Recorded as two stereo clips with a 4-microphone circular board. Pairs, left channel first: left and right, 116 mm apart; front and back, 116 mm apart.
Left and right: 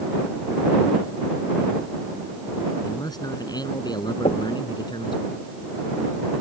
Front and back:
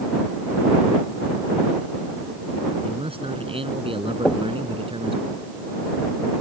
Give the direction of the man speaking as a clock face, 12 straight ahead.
7 o'clock.